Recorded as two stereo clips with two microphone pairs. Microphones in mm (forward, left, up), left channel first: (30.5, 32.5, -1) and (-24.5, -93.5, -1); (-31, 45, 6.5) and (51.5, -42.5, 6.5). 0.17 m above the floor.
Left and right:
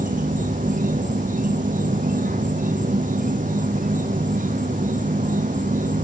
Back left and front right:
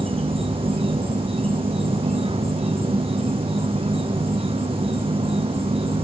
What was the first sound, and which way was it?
An insect, 90° right.